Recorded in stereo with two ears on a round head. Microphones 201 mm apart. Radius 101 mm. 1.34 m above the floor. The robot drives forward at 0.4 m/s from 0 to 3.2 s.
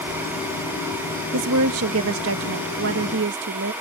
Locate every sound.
1.3 s a woman speaking: 75° right (ahead or behind); by 3.7 s 55° right (ahead or behind)